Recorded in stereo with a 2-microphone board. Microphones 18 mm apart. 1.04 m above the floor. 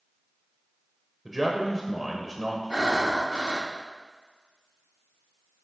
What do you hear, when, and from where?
1.2 s a man speaking: 20° right (ahead or behind), 0.8 m
2.7 s breathing: 60° right (ahead or behind), 0.7 m